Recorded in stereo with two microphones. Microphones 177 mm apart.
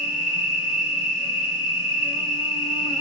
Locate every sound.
0.0 s an insect: 25° right (ahead or behind), 2.5 m